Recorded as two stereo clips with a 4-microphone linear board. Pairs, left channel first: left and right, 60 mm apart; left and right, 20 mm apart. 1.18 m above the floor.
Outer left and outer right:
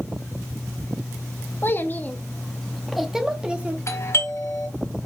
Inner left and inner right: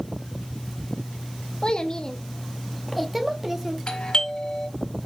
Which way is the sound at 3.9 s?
50° left (ahead or behind).